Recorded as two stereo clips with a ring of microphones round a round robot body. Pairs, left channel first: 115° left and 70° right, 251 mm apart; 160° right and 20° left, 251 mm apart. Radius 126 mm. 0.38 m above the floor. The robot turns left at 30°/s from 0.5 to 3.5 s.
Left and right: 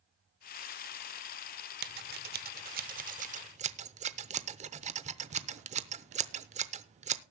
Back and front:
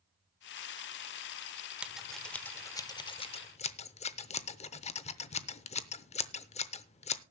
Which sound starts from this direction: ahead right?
Scissors, at 1.8 s.